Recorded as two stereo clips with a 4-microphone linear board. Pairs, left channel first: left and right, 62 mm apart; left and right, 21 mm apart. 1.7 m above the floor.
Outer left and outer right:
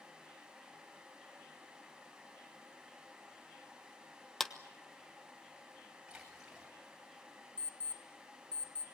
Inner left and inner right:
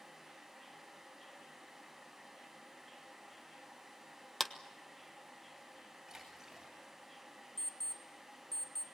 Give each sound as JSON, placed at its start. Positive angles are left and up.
{"t": 4.4, "sound": "a clap", "side_deg": 5, "distance_m": 1.1}
{"t": 6.1, "sound": "a splash", "side_deg": -10, "distance_m": 8.5}
{"t": 7.6, "sound": "an alarm clock", "side_deg": 25, "distance_m": 1.4}